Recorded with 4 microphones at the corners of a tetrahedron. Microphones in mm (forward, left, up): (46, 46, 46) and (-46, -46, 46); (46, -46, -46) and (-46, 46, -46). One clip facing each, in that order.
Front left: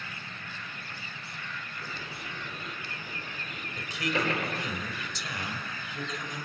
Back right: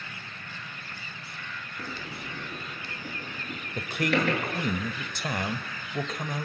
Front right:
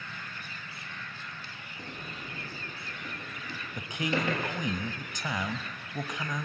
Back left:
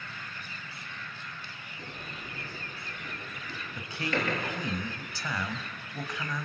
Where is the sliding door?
115° right, 7.5 m.